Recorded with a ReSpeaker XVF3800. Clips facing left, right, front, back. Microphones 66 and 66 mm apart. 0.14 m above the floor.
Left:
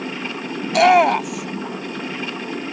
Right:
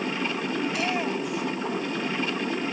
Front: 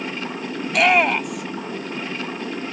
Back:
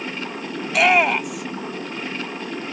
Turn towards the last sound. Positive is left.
turn(degrees=90)